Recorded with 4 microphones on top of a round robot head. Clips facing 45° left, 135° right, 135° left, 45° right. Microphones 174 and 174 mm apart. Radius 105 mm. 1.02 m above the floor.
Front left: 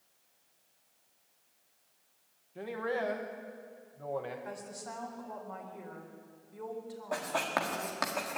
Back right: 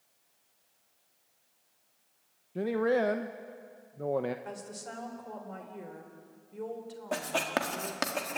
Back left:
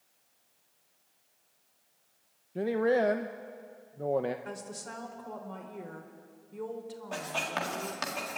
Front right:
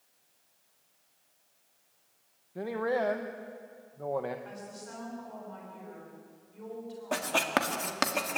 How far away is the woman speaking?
About 4 m.